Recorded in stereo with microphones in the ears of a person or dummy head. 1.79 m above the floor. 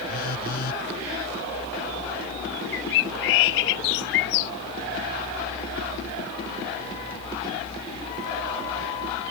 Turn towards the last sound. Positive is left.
turn(degrees=60)  # may be behind; listen again after turning